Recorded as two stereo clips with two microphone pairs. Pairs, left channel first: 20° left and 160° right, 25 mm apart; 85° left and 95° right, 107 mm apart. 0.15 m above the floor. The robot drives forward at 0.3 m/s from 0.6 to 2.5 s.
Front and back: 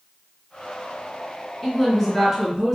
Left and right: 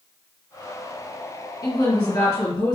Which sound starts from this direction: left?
A woman speaking, at 1.6 s.